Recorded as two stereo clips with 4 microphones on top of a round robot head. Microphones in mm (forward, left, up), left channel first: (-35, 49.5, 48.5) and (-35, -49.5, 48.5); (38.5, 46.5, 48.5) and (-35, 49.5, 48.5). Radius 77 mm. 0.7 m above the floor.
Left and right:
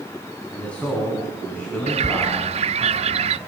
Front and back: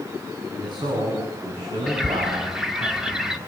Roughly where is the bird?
Right.